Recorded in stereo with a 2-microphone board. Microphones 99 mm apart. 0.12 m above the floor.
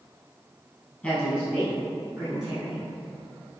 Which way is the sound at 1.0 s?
5° left (ahead or behind).